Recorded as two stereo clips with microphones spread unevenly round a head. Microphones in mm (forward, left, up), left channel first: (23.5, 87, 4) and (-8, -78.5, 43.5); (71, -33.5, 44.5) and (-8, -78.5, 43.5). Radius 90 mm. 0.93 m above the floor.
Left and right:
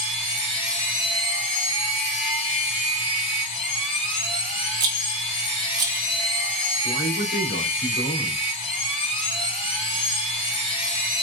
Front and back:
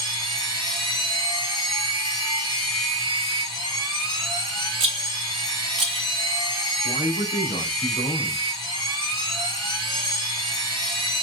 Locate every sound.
0.0 s a machine running: 140° left, 1.5 m
4.8 s a rattle: 155° right, 1.1 m
6.8 s a man speaking: 75° left, 2 m